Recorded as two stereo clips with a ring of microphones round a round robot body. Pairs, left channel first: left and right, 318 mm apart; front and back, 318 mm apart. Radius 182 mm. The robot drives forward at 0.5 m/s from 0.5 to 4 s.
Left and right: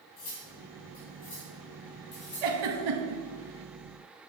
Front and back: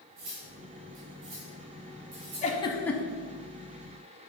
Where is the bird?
I don't hear a bird.